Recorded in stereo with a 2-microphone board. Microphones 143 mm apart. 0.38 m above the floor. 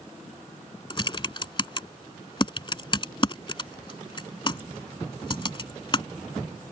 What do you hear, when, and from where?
0.9 s typing on a keyboard: 35° left (ahead or behind)